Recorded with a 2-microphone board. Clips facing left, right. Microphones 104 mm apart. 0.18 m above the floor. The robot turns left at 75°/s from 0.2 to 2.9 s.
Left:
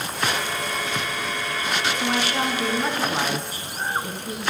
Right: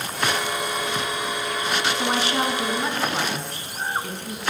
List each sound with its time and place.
1.9 s a woman speaking: 115° right, 1.3 m; by 4.4 s 170° left, 1.3 m